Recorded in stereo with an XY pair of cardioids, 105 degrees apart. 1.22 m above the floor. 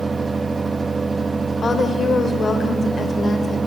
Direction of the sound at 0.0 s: 20° right.